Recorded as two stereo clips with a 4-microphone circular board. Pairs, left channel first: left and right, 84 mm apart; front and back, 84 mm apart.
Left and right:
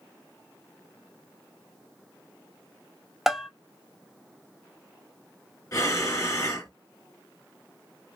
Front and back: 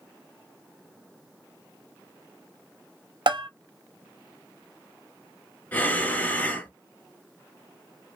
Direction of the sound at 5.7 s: 60° left.